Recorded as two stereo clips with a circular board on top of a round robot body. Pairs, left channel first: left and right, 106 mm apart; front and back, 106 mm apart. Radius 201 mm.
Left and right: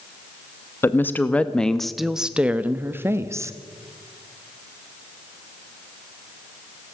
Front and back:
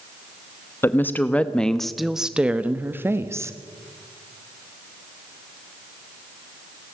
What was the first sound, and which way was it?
A woman speaking, 45° left.